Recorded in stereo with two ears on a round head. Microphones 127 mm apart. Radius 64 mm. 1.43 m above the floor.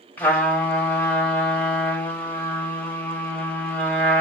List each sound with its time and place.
0.2 s a trumpet: 15° left (ahead or behind), 1.3 m